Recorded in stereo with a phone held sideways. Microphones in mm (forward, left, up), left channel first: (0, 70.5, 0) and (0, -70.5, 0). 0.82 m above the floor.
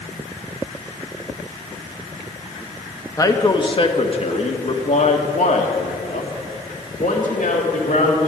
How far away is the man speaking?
About 1.3 m.